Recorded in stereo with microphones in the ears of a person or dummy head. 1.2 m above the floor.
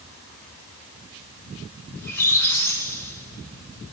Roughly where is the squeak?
Centre.